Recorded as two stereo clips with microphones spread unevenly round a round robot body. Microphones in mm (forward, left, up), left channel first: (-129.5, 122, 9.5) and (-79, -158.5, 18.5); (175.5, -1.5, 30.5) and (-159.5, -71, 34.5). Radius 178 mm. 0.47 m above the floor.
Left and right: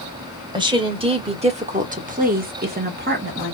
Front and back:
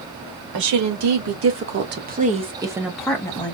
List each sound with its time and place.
0.5 s a woman speaking: 155° right, 1.8 m; by 3.5 s 50° right, 1.2 m